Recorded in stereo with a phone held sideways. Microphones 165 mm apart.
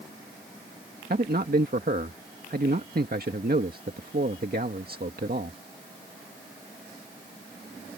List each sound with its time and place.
1.1 s a man speaking: 70° right (ahead or behind)